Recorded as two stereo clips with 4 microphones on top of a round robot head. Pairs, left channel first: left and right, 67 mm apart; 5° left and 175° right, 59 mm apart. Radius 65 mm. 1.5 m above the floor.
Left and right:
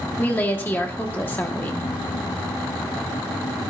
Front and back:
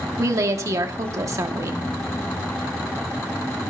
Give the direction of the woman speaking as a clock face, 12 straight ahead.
7 o'clock.